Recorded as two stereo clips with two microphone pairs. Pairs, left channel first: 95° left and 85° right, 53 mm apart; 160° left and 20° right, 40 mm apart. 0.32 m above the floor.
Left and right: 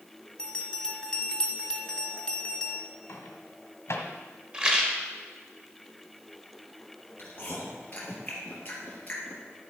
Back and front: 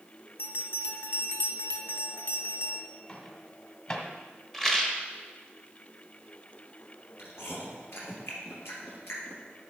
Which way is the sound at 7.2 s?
155° left.